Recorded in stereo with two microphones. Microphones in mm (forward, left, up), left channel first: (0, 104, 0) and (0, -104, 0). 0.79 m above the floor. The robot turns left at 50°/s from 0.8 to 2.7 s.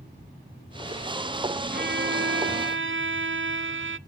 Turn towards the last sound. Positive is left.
turn(degrees=-100)